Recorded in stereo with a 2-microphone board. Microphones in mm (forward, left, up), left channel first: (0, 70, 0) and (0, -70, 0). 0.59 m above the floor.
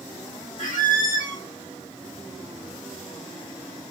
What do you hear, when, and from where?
0.6 s a squeak: 65° left (ahead or behind), 0.9 m